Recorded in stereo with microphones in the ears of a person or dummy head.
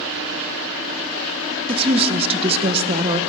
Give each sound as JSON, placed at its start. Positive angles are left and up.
{"t": 1.7, "sound": "a woman speaking", "side_deg": -25, "distance_m": 0.8}